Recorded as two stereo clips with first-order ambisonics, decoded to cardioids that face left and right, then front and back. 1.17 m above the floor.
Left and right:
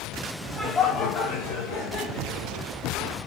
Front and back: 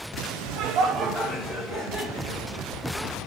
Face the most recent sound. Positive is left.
turn(degrees=65)